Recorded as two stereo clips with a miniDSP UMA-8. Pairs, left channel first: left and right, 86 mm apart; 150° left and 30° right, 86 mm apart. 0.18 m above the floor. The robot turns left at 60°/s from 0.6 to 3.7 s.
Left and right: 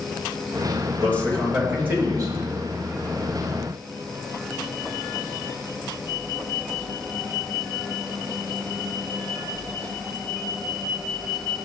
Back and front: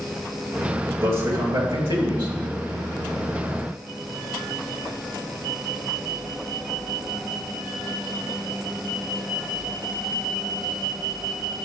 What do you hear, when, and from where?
1.0 s a man speaking: 30° left, 3.5 m; by 2.4 s 50° right, 3.5 m